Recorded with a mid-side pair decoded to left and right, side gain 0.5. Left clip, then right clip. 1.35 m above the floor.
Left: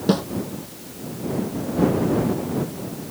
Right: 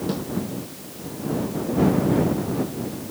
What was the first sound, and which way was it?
A snare drum, 55° left.